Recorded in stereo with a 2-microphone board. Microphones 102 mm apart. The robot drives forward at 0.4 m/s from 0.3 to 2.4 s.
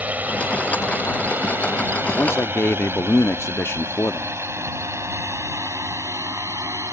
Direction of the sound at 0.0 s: 15° right (ahead or behind).